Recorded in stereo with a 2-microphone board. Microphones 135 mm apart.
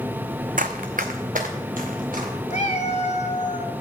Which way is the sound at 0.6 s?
85° right.